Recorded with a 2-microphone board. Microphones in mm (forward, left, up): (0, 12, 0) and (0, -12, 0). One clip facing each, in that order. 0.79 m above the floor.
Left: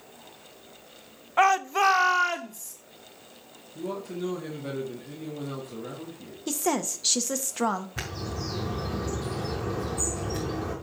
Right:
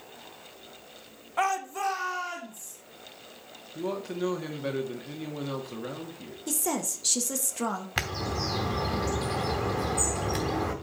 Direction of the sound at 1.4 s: 25° left (ahead or behind).